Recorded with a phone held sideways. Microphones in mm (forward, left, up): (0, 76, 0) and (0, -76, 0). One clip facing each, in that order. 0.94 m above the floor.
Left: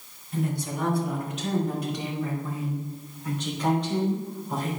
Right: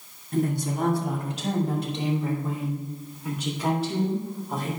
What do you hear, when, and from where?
0.3 s a woman speaking: 50° right (ahead or behind), 2.5 m; by 4.7 s centre (ahead or behind), 4 m